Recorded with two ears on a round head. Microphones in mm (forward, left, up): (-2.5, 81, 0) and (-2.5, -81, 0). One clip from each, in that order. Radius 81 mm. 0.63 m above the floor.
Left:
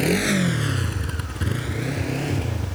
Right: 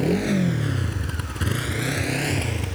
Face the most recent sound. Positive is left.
turn(degrees=-55)  # may be behind; listen again after turning